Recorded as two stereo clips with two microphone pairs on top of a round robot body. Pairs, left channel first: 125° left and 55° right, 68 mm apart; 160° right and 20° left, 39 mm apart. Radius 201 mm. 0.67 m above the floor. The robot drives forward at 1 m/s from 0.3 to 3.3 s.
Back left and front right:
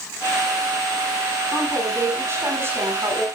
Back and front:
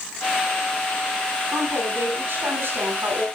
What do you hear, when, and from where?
1.5 s a woman speaking: straight ahead, 7.5 m